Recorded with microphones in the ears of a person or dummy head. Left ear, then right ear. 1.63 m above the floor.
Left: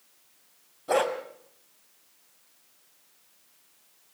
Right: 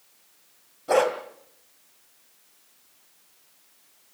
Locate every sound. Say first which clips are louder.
0.9 s a dog barking: right 4 dB; centre (ahead or behind), 2.5 m